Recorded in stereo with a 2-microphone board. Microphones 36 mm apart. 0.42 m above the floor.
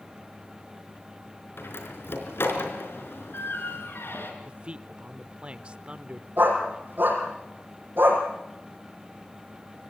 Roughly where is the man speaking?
Right.